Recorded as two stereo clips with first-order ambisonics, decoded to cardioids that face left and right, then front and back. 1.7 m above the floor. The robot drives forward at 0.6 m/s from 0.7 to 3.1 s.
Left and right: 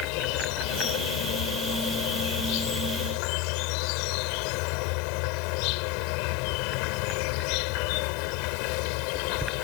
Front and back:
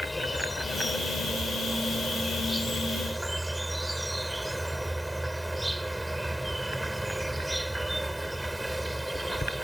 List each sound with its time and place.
0.0 s an insect: 85° left; by 9.7 s 95° left